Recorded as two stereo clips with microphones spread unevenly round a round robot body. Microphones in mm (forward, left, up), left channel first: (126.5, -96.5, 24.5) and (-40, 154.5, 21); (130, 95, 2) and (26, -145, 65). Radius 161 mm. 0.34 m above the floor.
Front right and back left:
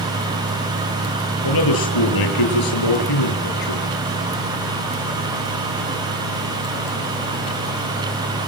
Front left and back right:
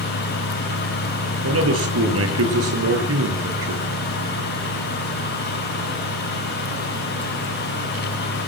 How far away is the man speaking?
About 7.5 m.